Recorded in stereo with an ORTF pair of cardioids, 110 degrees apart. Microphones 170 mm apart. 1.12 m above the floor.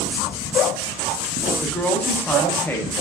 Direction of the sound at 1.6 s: 10° left.